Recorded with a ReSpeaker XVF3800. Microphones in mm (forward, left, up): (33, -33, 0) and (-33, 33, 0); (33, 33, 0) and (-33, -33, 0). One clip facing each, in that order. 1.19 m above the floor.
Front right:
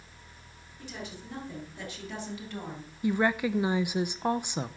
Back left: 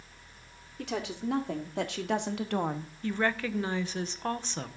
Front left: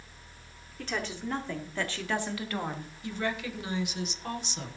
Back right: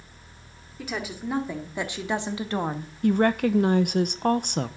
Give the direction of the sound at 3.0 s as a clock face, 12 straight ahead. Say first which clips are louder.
Front right 4 dB, back right 13 dB; 4 o'clock.